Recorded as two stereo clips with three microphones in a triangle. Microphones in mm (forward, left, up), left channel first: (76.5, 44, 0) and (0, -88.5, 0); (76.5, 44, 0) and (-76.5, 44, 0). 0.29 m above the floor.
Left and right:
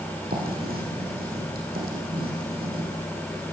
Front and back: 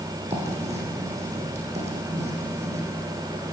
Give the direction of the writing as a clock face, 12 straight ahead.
4 o'clock.